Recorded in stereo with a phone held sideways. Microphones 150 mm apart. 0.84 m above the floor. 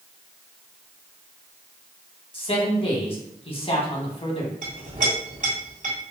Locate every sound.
2.3 s a man speaking: 40° left (ahead or behind), 1.0 m
4.6 s a clink: 55° right (ahead or behind), 1.9 m